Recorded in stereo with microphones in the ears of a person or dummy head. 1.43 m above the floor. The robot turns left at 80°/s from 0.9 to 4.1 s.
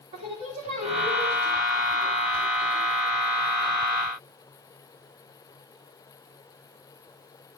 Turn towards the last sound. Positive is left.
turn(degrees=-30)